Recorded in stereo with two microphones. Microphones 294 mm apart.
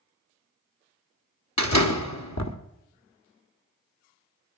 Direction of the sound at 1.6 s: 65° left (ahead or behind).